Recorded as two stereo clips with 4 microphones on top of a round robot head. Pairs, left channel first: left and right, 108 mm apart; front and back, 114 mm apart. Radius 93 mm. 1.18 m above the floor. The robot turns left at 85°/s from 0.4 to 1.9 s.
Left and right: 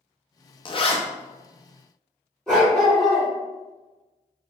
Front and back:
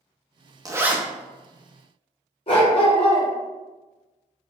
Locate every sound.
0.7 s a zipper: 125° left, 0.7 m; by 1.0 s 95° left, 0.7 m
2.5 s a dog barking: 5° left, 1.0 m